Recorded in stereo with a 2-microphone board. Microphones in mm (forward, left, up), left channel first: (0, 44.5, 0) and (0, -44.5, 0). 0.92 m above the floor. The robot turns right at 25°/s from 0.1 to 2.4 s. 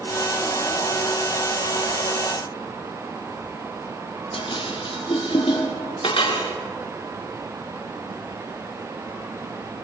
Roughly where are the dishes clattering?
Left.